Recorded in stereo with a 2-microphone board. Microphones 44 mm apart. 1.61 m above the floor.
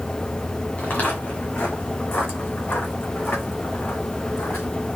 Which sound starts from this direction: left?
Footsteps, at 0.8 s.